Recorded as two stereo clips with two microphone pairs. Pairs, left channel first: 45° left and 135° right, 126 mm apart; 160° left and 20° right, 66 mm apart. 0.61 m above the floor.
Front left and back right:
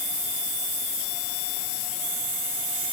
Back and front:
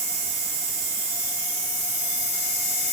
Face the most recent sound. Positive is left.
No sound to turn to.